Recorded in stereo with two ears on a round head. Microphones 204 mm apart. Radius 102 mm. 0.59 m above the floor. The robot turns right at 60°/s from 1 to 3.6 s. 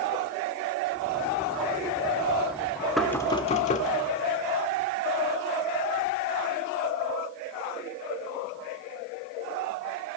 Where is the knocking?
Straight ahead, 1.6 m; by 3.9 s 40° left, 1.6 m.